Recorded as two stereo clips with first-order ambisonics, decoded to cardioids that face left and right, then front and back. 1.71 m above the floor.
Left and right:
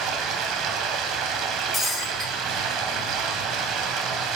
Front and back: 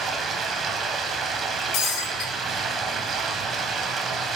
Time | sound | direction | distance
0.0 | running water | 125° right | 0.8 m
1.7 | breaking glass | 20° left | 2.5 m